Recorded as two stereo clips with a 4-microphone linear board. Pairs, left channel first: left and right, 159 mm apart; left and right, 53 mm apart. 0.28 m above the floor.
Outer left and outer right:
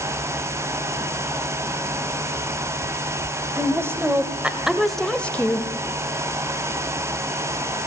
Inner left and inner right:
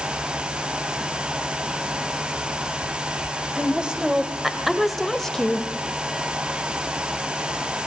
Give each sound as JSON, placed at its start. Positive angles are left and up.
{"t": 3.5, "sound": "a woman speaking", "side_deg": -20, "distance_m": 1.4}